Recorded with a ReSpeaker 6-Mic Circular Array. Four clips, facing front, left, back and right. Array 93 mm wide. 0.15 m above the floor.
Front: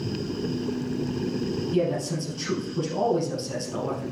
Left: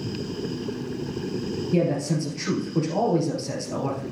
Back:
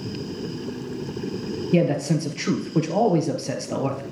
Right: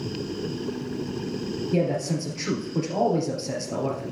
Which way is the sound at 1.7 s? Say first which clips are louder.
Left 1 dB, back 6 dB; straight behind.